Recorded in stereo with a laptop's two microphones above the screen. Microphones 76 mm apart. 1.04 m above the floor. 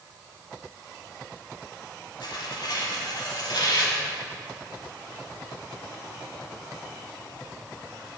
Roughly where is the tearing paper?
Left.